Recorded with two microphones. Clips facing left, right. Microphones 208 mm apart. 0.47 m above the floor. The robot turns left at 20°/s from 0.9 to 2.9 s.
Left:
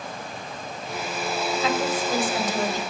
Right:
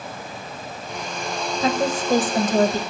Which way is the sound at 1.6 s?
40° right (ahead or behind).